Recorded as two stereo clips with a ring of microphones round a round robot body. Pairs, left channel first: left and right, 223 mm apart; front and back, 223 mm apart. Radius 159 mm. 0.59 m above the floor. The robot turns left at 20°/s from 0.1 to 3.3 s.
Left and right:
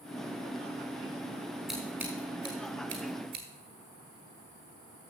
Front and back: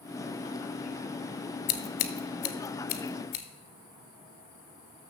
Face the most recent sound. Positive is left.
turn(degrees=-35)